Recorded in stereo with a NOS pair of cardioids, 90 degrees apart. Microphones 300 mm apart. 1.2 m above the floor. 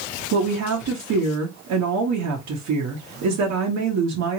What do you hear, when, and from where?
0.3 s a woman speaking: 70° right, 1.3 m